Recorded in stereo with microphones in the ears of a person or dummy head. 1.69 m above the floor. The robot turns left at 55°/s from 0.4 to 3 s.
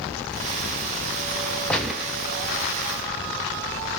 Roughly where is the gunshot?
Centre.